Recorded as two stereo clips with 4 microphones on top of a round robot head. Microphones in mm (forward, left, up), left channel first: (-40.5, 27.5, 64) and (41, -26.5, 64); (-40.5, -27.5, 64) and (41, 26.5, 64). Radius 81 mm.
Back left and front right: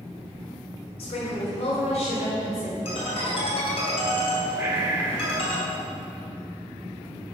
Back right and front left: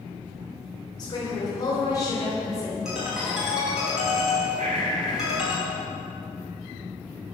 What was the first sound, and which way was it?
A woman speaking, 165° left.